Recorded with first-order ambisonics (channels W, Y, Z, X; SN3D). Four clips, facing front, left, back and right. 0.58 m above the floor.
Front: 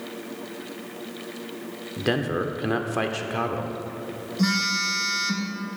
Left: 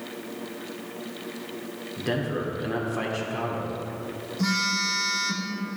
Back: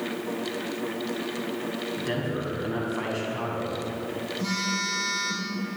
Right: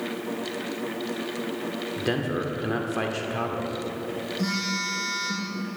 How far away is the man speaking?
About 1.1 m.